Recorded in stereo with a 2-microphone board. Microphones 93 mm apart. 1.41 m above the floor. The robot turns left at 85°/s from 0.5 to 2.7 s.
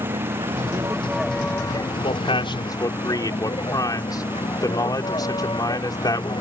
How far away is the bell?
No bell in this recording.